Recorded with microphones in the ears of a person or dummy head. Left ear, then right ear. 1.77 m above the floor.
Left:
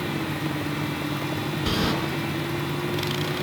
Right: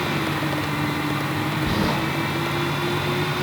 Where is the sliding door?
50° left (ahead or behind), 4.5 m.